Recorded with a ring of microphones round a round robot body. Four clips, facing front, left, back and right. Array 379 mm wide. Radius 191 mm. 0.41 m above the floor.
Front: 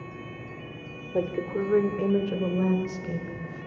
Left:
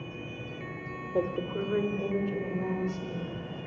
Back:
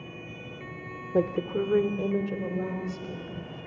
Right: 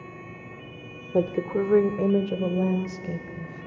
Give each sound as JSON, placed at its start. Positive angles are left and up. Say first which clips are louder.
{"t": 1.1, "sound": "a woman speaking", "louder": "right 6 dB, back 1 dB", "azimuth_deg": -125, "distance_m": 1.3}